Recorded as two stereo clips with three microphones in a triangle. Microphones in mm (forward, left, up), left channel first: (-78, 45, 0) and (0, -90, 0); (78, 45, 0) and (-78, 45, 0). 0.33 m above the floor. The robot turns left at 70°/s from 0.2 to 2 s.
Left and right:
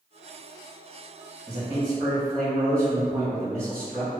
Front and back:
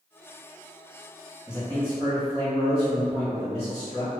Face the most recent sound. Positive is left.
turn(degrees=-150)